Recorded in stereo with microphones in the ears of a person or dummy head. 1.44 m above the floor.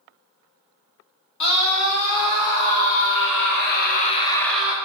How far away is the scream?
About 1.7 m.